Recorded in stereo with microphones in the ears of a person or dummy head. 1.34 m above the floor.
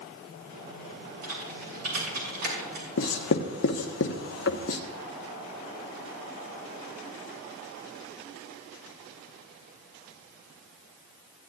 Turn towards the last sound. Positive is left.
turn(degrees=65)  # may be behind; listen again after turning